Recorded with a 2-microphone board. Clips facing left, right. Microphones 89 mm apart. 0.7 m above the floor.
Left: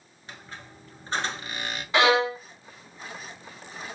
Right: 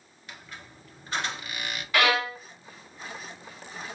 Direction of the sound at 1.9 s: 25° left (ahead or behind).